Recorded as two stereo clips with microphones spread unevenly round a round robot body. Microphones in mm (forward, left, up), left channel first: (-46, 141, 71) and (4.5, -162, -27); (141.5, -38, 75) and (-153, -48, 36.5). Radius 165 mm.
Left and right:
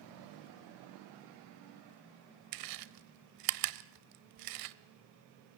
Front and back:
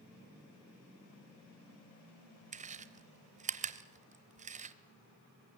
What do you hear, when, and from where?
2.5 s chewing: 110° right, 0.9 m